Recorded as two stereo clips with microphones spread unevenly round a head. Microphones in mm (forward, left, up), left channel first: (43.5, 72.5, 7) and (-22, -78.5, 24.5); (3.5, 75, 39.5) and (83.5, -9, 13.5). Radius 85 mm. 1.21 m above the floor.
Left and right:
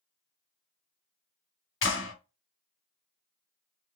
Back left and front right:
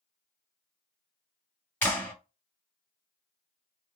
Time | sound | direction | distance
1.8 | a clap | 60° left | 1.6 m